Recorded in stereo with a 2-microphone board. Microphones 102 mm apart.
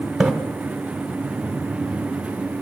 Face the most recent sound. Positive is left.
turn(degrees=-5)  # may be behind; listen again after turning